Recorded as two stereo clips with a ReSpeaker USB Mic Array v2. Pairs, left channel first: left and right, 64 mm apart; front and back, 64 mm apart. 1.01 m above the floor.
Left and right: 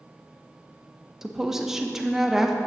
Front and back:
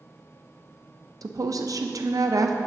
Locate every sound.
1.2 s a woman speaking: 175° right, 0.6 m